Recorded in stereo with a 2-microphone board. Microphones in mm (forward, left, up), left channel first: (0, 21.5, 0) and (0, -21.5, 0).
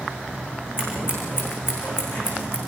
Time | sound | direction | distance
0.8 | scissors | 60° left (ahead or behind) | 9.5 m